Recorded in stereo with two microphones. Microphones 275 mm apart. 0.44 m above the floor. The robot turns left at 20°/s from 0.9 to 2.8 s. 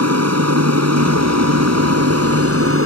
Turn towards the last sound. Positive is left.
turn(degrees=-55)  # may be behind; listen again after turning